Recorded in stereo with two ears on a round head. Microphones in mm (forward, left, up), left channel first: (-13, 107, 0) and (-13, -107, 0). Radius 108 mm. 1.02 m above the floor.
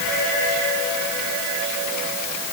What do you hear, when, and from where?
Only background noise.